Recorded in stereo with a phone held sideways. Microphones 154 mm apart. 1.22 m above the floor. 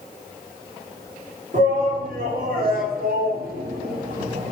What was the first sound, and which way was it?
A shout, 60° right (ahead or behind).